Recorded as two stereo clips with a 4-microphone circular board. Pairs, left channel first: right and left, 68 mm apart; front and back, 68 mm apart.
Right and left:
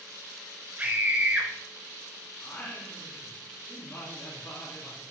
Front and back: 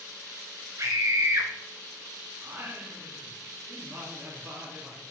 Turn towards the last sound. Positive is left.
turn(degrees=-140)